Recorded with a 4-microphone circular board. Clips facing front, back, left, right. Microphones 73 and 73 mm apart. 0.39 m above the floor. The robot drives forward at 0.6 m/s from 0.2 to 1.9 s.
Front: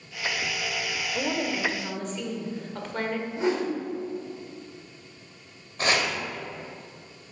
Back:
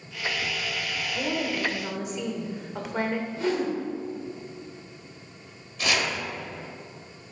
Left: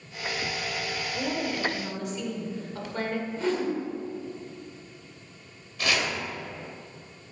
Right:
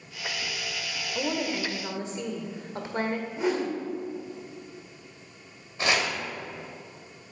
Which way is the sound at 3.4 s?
30° right.